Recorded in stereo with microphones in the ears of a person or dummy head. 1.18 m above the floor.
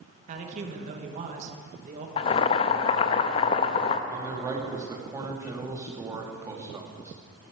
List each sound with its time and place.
0.3 s a man speaking: 50° right (ahead or behind), 1.6 m
2.2 s boiling: 25° left (ahead or behind), 0.6 m
4.1 s a man speaking: 10° right (ahead or behind), 2.0 m